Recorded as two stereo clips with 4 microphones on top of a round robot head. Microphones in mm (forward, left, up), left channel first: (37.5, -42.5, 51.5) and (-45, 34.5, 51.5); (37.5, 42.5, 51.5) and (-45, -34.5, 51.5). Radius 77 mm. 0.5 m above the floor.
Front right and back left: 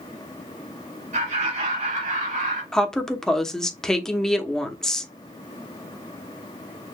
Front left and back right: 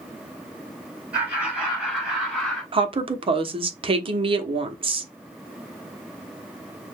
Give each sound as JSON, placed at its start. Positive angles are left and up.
{"t": 1.1, "sound": "laughter", "azimuth_deg": 145, "distance_m": 4.5}
{"t": 2.7, "sound": "a woman speaking", "azimuth_deg": -130, "distance_m": 1.1}